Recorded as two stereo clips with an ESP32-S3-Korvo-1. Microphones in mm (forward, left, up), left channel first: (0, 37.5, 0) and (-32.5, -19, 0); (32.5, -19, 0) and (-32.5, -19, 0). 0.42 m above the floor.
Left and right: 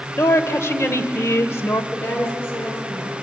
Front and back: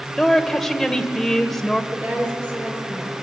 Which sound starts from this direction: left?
A woman speaking, at 0.2 s.